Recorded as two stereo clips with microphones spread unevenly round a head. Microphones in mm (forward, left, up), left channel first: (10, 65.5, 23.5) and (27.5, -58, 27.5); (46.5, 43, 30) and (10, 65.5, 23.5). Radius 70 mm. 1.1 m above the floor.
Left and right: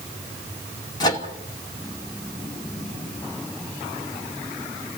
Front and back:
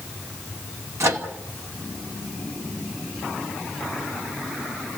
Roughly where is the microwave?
Behind.